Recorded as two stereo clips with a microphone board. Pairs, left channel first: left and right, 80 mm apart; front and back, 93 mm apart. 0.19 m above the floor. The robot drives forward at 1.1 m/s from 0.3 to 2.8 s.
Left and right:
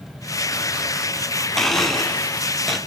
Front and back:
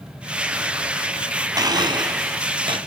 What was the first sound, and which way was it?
A blender, 175° left.